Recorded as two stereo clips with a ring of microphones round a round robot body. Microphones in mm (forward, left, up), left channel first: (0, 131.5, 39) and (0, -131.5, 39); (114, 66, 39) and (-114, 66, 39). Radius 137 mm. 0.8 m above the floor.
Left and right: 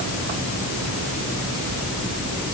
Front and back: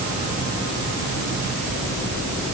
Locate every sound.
Only background noise.